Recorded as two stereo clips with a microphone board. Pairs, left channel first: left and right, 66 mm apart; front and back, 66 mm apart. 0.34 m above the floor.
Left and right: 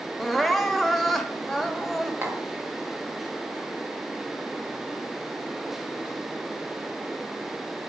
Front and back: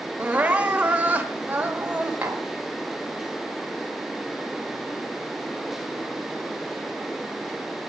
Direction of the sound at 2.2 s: 120° right.